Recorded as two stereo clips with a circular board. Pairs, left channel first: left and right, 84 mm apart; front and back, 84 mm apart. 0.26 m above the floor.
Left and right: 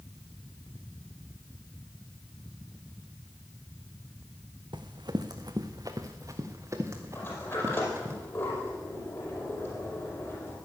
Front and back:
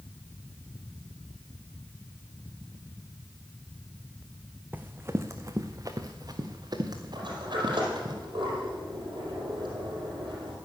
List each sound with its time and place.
4.7 s running footsteps: 110° right, 1.0 m; by 8.2 s 150° right, 2.5 m
7.2 s a sliding door: 150° left, 4.5 m